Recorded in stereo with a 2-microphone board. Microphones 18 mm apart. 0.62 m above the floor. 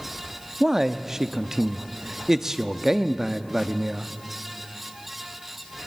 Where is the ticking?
No ticking in this recording.